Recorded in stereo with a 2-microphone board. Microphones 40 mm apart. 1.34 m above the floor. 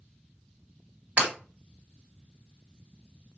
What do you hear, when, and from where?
1.2 s breaking glass: 35° right (ahead or behind), 1.6 m